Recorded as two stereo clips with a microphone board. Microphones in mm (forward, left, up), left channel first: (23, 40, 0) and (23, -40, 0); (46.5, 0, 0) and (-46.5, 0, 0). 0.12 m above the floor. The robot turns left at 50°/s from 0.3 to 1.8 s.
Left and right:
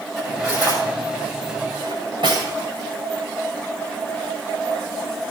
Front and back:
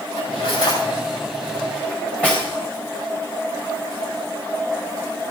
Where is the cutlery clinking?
5° right, 6.5 m; by 2.5 s 80° right, 6.5 m.